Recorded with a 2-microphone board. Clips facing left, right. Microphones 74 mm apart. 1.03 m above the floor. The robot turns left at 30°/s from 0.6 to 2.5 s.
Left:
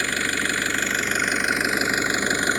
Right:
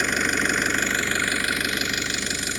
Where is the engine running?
170° right; by 2.6 s 135° left.